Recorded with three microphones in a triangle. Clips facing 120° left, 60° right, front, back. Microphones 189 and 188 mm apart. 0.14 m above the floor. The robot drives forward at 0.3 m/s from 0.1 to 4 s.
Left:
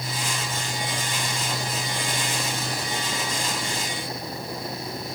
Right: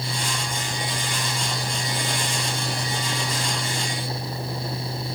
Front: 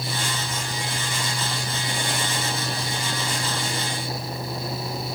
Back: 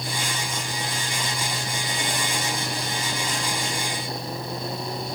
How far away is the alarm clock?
I don't hear an alarm clock.